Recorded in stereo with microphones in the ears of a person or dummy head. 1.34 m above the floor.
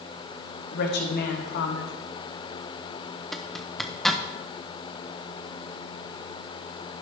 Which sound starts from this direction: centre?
A zipper, at 3.3 s.